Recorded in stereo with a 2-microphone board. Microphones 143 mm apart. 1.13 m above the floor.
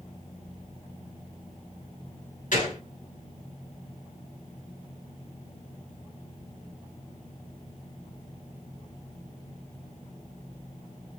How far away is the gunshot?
About 2 m.